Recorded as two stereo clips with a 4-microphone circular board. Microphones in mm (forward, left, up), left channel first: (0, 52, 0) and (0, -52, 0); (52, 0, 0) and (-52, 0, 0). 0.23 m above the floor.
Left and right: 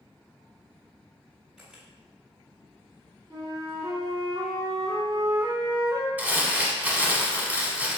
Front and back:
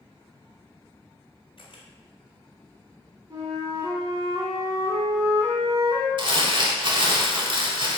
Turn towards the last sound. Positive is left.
turn(degrees=-160)